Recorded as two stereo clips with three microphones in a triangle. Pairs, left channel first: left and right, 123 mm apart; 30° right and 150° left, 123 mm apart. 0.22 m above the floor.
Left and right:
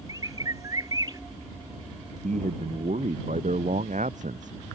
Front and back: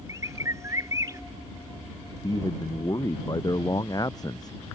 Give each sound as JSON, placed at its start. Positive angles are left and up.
{"t": 0.1, "sound": "a bird", "azimuth_deg": -145}
{"t": 2.2, "sound": "a man speaking", "azimuth_deg": -90}